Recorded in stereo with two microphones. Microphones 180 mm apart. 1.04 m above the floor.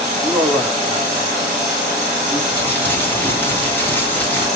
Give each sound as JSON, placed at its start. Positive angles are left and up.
{"t": 0.2, "sound": "a man speaking", "side_deg": 5, "distance_m": 2.5}
{"t": 2.5, "sound": "crumpling", "side_deg": 10, "distance_m": 1.9}